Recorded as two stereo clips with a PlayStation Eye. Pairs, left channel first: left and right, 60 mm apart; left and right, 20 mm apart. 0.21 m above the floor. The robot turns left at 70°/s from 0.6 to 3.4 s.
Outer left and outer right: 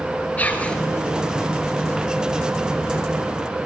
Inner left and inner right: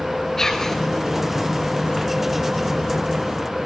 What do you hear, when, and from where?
0.4 s whispering: 25° left (ahead or behind), 3 m; by 0.8 s 10° left (ahead or behind), 3 m